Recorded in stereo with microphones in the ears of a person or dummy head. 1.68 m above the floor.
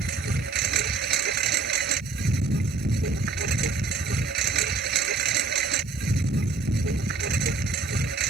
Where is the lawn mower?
55° right (ahead or behind).